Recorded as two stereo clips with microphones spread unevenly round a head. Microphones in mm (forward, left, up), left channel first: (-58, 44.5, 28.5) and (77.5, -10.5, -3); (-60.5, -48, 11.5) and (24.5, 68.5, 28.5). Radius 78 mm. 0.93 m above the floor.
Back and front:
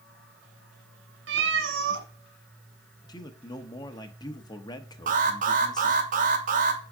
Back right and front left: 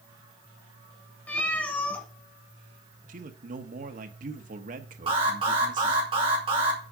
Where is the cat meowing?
40° right, 1.4 m.